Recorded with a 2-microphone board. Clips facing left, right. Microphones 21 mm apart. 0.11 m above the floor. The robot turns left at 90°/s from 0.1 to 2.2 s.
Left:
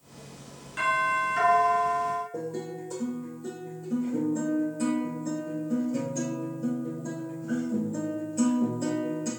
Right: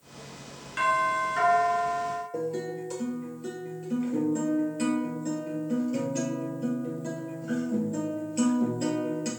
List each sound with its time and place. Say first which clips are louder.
0.8 s a doorbell: even; 20° right (ahead or behind), 1.5 m; by 2.2 s 15° left (ahead or behind), 1.5 m
2.3 s a guitar: right 3 dB; 55° right (ahead or behind), 2 m